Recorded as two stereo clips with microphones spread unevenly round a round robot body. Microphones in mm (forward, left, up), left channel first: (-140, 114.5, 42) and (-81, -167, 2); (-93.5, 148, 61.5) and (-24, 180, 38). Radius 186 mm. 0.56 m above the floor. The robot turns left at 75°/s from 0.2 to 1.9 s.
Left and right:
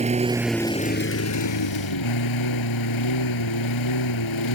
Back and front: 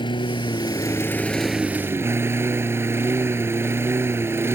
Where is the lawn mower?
145° right; by 4.5 s 85° left.